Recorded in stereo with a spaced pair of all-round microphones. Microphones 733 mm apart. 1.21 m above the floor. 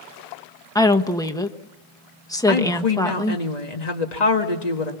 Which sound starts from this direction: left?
A woman speaking, at 2.5 s.